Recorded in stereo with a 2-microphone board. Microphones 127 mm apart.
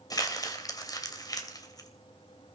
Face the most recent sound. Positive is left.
turn(degrees=30)  # may be behind; listen again after turning